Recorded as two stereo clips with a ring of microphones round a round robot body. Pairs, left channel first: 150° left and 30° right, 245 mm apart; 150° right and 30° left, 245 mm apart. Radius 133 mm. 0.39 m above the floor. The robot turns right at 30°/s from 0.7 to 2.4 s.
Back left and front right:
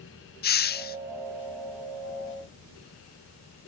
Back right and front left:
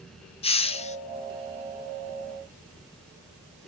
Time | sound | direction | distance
0.4 | a hiss | 160° left | 0.8 m